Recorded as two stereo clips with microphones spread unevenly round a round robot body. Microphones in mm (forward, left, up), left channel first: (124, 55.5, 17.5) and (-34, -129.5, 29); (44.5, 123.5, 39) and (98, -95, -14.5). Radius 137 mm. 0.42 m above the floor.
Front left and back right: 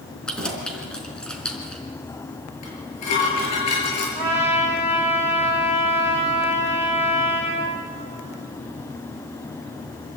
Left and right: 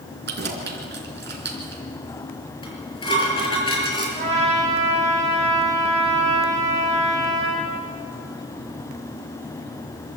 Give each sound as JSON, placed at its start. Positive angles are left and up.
{"t": 0.3, "sound": "keys jangling", "azimuth_deg": -35, "distance_m": 3.5}
{"t": 2.6, "sound": "dishes clattering", "azimuth_deg": 35, "distance_m": 6.5}
{"t": 4.2, "sound": "a trumpet", "azimuth_deg": -15, "distance_m": 7.0}